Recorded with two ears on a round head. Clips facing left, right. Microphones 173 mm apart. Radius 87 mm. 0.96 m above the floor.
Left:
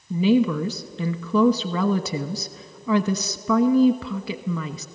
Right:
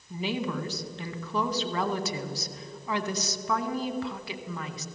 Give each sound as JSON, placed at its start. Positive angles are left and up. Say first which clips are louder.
{"t": 0.1, "sound": "a woman speaking", "louder": "left 12 dB", "side_deg": 65, "distance_m": 1.2}